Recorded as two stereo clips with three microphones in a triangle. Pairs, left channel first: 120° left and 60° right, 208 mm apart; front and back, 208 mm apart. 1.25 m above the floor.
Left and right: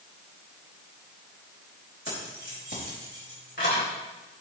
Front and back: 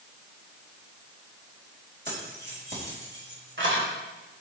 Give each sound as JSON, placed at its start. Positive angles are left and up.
{"t": 2.0, "sound": "keys jangling", "azimuth_deg": 145, "distance_m": 5.0}